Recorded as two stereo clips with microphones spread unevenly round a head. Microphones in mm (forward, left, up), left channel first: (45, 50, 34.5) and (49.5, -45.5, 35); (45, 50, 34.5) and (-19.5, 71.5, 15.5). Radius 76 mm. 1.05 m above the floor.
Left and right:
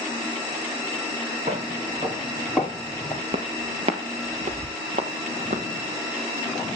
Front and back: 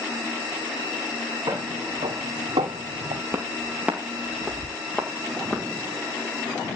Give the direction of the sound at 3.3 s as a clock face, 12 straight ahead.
4 o'clock.